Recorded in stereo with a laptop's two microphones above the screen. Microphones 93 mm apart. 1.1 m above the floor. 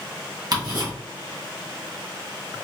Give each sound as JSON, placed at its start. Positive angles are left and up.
{"t": 0.5, "sound": "ticking", "side_deg": -50, "distance_m": 1.0}